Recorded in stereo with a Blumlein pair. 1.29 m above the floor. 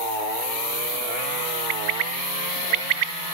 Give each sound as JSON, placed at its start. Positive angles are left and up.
{"t": 1.7, "sound": "a bird", "azimuth_deg": -40, "distance_m": 0.9}